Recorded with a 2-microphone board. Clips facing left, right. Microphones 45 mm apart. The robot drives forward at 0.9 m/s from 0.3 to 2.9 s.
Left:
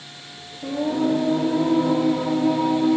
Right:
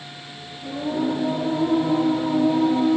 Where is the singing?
65° left (ahead or behind), 2.5 m; by 3.0 s 60° left (ahead or behind), 2.5 m.